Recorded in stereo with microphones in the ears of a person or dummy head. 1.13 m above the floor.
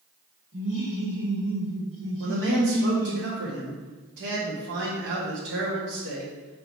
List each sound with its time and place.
0.5 s laughter: 70° right (ahead or behind), 2.5 m
2.2 s a man speaking: 55° right (ahead or behind), 1.7 m